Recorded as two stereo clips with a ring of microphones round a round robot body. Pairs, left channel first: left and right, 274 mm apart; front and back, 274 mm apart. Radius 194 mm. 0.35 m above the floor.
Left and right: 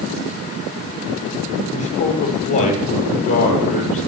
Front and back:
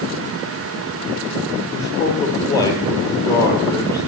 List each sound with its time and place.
1.7 s a man speaking: 80° left, 9 m